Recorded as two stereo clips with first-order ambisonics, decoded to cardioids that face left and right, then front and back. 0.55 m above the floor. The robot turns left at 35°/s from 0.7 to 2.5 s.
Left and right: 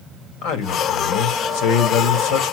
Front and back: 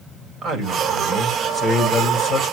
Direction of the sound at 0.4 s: 115° left.